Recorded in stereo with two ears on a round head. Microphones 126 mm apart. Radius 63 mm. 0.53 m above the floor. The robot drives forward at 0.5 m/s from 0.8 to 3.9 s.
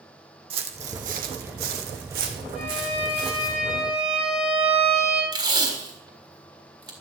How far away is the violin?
About 4.5 m.